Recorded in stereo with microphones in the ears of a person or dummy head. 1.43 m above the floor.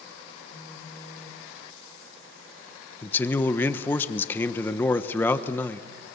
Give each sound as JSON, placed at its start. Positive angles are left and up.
{"t": 0.5, "sound": "a phone buzzing", "side_deg": 30, "distance_m": 6.0}
{"t": 3.0, "sound": "a man speaking", "side_deg": 10, "distance_m": 1.2}